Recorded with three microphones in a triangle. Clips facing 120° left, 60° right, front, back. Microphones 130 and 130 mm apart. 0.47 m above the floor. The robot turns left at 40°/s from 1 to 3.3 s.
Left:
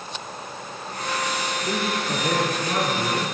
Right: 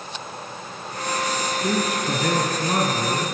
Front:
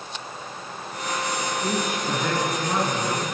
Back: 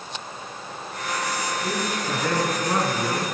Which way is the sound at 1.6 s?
60° right.